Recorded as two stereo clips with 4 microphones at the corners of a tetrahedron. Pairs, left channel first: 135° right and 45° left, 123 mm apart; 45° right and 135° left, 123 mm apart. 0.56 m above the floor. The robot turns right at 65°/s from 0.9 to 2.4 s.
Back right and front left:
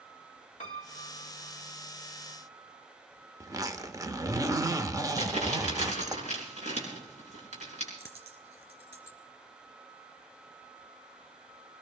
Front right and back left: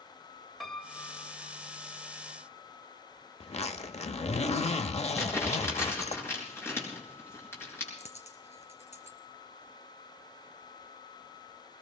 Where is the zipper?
20° right, 0.8 m.